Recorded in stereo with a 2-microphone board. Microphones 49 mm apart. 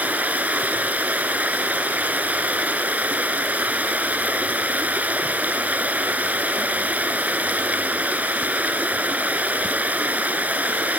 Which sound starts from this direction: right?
Running water, at 0.0 s.